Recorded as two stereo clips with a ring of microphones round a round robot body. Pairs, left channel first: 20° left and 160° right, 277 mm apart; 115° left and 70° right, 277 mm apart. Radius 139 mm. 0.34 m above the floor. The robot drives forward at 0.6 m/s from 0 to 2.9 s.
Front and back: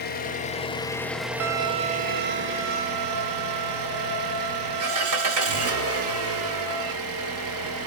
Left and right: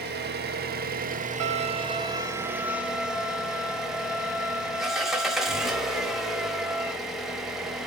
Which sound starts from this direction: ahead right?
An engine running, at 0.0 s.